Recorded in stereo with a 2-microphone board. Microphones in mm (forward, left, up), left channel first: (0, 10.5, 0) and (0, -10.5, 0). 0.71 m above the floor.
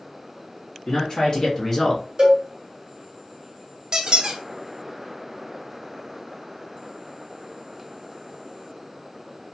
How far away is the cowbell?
About 1.4 m.